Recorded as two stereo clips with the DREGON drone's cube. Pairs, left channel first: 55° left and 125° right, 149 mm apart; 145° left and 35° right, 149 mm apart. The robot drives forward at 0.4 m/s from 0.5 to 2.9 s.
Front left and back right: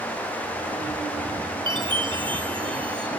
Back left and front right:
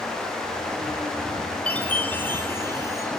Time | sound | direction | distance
1.7 | a chime | 140° right | 1.7 m